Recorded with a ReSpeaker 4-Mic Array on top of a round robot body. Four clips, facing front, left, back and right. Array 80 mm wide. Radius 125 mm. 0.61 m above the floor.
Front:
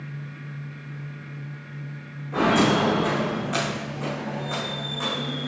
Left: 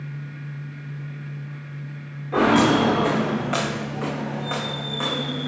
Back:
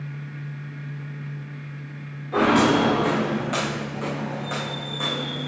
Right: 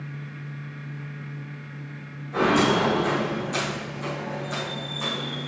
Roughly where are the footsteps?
Left.